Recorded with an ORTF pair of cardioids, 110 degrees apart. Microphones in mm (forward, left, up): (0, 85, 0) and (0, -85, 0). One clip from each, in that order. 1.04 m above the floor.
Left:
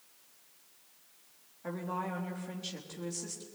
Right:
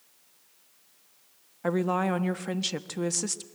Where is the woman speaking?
70° right, 1.4 m.